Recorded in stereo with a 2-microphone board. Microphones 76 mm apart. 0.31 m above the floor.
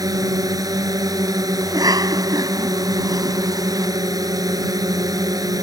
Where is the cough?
55° right (ahead or behind).